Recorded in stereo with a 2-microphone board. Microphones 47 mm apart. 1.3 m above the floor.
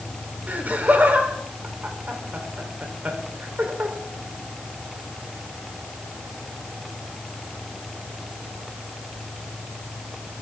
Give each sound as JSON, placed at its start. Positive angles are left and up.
{"t": 0.5, "sound": "laughter", "side_deg": -40, "distance_m": 3.5}